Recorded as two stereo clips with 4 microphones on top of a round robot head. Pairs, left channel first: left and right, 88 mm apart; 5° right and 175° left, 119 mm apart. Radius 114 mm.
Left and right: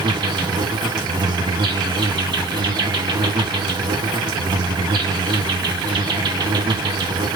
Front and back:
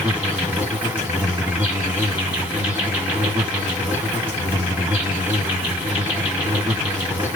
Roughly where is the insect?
Right.